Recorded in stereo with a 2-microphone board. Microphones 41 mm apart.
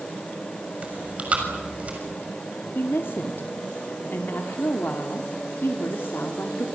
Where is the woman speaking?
65° left (ahead or behind), 2 m.